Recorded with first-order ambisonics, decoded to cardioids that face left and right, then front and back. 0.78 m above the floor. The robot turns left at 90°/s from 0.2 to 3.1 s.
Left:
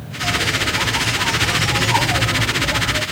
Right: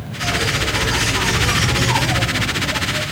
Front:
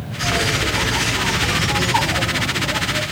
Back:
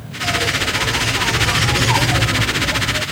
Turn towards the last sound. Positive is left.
turn(degrees=95)